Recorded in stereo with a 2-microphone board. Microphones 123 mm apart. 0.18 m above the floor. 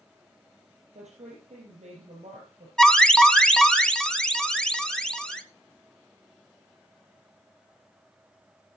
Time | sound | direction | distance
0.9 | a woman speaking | 65° right (ahead or behind) | 4.5 m
2.8 | an alarm | 5° left (ahead or behind) | 1.5 m